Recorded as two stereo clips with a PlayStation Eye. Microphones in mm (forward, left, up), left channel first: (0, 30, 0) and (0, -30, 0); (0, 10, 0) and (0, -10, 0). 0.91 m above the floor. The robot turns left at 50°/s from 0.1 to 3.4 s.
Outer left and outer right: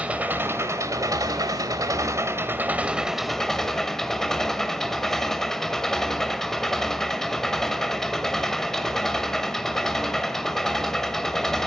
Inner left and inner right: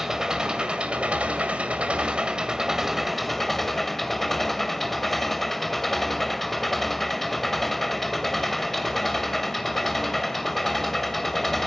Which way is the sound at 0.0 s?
20° right.